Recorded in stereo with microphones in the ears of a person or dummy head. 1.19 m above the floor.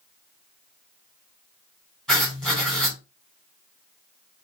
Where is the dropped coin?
No dropped coin in this recording.